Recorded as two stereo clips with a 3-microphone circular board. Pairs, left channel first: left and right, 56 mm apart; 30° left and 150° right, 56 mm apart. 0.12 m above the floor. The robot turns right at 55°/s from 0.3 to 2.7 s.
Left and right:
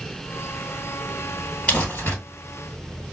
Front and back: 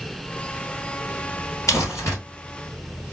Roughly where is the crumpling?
Ahead left.